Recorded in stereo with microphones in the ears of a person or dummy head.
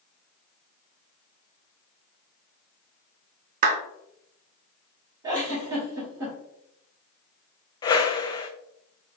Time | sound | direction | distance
3.6 | a clap | 50° right (ahead or behind) | 0.6 m
5.2 | a giggle | 20° right (ahead or behind) | 1.1 m
7.8 | a whoosh | 20° left (ahead or behind) | 0.5 m